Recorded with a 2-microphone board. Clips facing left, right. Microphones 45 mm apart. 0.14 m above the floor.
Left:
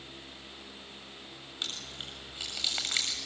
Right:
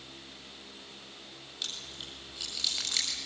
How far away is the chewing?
About 7 m.